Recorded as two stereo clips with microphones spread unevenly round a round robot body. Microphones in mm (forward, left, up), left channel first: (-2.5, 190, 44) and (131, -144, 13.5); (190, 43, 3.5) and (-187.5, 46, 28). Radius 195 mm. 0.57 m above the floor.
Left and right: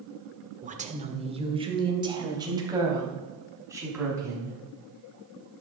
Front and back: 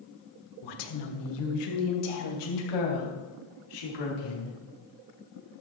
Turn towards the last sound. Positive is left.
turn(degrees=15)